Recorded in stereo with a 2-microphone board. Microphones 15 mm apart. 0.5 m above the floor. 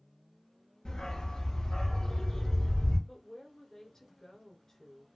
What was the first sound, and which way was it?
A dog barking, 75° left (ahead or behind).